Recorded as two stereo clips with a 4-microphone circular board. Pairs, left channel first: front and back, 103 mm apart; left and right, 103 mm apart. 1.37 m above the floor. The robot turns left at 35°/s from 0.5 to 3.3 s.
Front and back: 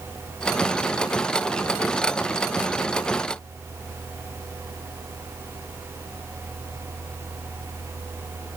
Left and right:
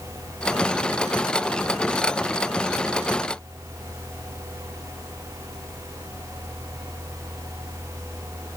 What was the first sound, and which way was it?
Only background noise.